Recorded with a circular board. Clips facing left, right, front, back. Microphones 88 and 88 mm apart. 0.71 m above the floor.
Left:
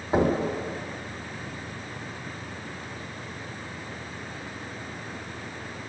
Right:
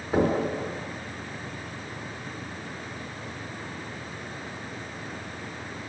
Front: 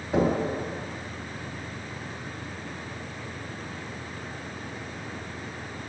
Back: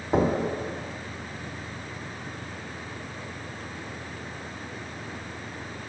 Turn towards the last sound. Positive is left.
turn(degrees=160)